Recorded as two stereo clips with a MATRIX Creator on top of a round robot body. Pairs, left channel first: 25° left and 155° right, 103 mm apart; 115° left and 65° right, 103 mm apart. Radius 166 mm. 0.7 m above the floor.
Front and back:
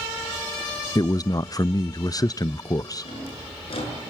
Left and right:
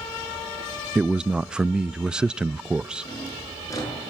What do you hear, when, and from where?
0.9 s a man speaking: 10° left, 0.5 m
3.0 s a drawer: 55° left, 7 m